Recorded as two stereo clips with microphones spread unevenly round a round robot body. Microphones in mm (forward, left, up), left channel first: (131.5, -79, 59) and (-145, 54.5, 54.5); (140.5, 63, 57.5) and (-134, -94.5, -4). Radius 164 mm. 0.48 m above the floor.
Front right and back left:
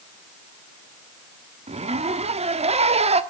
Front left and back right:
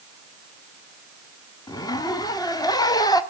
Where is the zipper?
115° left, 1.4 m.